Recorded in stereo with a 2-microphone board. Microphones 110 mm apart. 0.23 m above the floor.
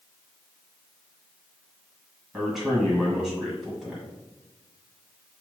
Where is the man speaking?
Centre (ahead or behind), 1.4 m.